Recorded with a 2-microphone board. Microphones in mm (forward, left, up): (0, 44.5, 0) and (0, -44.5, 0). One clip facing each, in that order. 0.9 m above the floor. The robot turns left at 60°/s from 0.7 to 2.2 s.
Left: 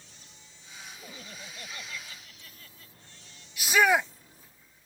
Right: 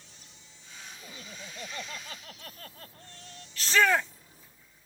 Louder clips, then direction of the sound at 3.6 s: Left 1 dB; 15° left (ahead or behind).